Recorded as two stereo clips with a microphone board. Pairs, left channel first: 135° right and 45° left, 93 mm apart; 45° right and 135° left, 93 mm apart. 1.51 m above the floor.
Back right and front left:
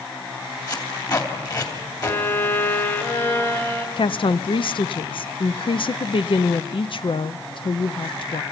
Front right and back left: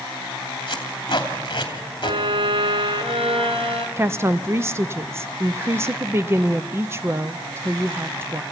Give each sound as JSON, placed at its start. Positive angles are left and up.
{"t": 0.7, "sound": "tape being pulled", "azimuth_deg": -85, "distance_m": 3.0}
{"t": 2.0, "sound": "a violin", "azimuth_deg": 160, "distance_m": 1.8}
{"t": 4.0, "sound": "a woman speaking", "azimuth_deg": -165, "distance_m": 0.6}